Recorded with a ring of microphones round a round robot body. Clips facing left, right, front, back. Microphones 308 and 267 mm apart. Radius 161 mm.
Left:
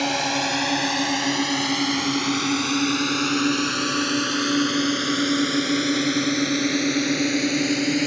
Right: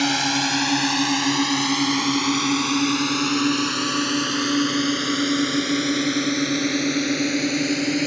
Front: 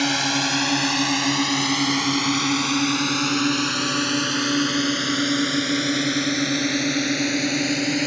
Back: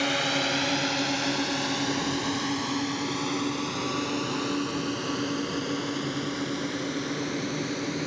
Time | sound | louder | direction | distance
0.0 | a drone | right 3 dB, front 5 dB | 35° right | ?